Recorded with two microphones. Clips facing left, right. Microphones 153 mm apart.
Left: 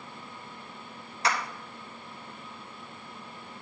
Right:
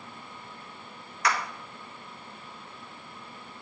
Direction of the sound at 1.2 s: 30° left (ahead or behind).